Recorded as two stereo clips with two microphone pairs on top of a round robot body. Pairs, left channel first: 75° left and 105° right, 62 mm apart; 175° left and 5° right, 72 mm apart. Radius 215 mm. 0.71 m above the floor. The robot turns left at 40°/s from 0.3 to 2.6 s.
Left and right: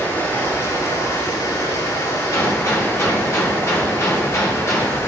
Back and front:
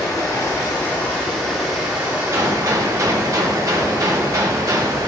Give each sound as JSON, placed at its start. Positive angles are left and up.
{"t": 0.0, "sound": "running water", "azimuth_deg": 135, "distance_m": 7.0}
{"t": 2.3, "sound": "a gunshot", "azimuth_deg": 45, "distance_m": 2.5}